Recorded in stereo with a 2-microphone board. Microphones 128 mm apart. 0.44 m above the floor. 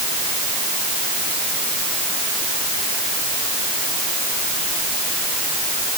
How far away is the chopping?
I don't hear chopping.